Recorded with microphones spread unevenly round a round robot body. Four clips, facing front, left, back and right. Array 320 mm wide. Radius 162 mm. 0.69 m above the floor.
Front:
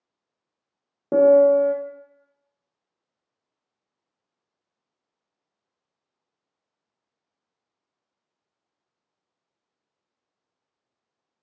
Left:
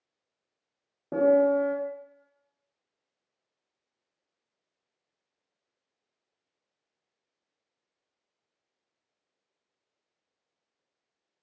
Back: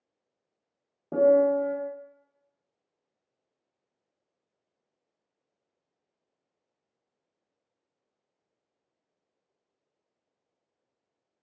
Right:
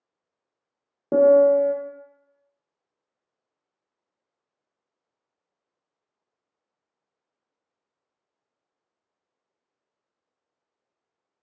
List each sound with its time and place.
1.1 s a piano: 30° right, 0.5 m